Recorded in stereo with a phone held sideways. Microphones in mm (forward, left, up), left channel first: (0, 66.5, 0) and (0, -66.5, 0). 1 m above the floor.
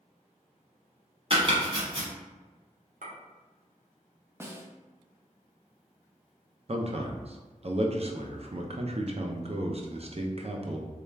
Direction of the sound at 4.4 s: 20° right (ahead or behind).